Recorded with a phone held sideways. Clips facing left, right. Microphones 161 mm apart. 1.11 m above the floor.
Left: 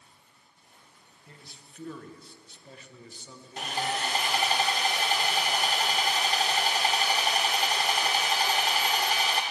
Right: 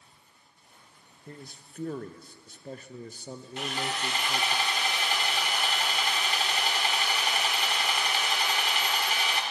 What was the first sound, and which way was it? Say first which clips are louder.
A man speaking: right 8 dB; 50° right (ahead or behind).